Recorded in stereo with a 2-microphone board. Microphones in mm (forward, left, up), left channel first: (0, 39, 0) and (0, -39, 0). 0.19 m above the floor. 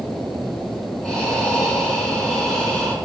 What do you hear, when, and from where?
1.0 s breathing: 5° left (ahead or behind), 2.5 m